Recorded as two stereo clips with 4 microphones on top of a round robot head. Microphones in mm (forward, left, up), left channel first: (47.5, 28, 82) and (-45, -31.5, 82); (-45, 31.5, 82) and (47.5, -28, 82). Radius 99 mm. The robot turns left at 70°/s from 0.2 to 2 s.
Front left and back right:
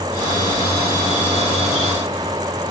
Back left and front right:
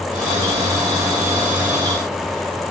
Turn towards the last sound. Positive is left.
No sound to turn to.